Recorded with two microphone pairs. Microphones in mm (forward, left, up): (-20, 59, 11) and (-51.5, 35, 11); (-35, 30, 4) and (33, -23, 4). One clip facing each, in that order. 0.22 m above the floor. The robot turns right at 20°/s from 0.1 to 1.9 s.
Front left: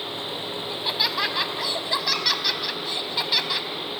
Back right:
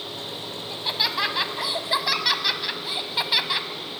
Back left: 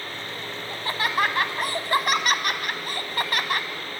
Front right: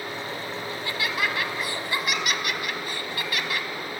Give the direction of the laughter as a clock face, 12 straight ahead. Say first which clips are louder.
Even, back left 5 dB; 8 o'clock.